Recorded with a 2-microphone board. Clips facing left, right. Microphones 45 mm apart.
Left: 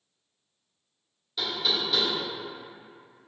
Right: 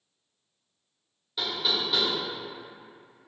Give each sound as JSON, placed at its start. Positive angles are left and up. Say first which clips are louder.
{"t": 1.4, "sound": "knocking", "louder": "even", "side_deg": -10, "distance_m": 1.3}